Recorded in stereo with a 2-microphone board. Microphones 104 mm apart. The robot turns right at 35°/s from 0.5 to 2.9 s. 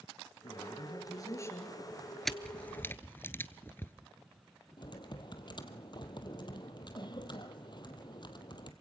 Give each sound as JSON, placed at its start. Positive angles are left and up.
{"t": 0.4, "sound": "a man speaking", "azimuth_deg": 110, "distance_m": 2.5}
{"t": 2.2, "sound": "a camera shutter", "side_deg": 0, "distance_m": 0.7}
{"t": 4.8, "sound": "typing on a keyboard", "side_deg": 45, "distance_m": 1.3}